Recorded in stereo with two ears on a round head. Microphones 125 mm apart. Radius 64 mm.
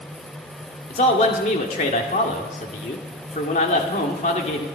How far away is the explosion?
No explosion in this recording.